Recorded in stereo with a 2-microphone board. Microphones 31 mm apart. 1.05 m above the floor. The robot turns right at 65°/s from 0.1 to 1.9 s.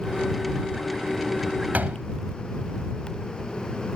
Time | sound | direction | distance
1.7 | a door slam | 60° right (ahead or behind) | ?